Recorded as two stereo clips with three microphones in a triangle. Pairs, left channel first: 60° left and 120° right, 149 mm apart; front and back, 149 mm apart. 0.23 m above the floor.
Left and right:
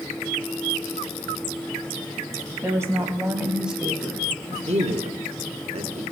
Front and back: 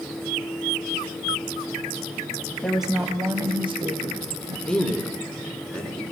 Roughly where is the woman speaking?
Right.